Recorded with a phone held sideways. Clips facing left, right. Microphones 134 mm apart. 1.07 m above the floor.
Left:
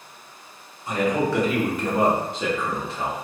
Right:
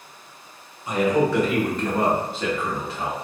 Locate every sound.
0.9 s a man speaking: 5° right (ahead or behind), 0.9 m; by 3.2 s 25° left (ahead or behind), 0.9 m